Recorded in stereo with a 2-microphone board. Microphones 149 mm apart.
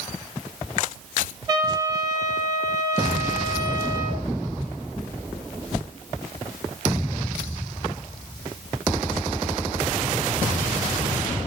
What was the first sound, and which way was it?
A trumpet, 30° right (ahead or behind).